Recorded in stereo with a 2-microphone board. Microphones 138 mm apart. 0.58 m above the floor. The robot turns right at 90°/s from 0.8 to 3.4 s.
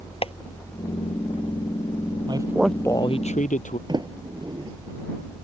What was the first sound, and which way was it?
Tapping, 45° left (ahead or behind).